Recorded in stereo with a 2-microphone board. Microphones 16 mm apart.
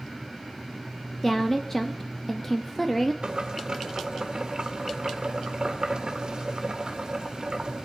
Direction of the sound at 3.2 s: 50° right (ahead or behind).